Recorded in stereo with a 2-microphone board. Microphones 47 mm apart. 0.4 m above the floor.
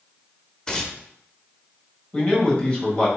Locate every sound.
0.7 s tearing paper: 15° left (ahead or behind), 0.7 m
2.1 s a man speaking: 20° left (ahead or behind), 1.7 m